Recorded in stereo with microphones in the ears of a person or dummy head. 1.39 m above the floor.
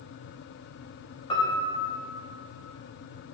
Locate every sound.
1.3 s a piano: 30° left (ahead or behind), 0.7 m